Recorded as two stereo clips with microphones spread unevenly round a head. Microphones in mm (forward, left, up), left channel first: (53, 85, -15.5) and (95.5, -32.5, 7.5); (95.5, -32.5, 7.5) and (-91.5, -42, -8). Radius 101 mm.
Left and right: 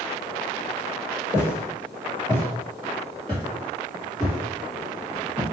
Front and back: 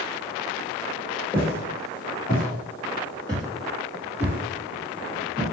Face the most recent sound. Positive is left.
turn(degrees=-145)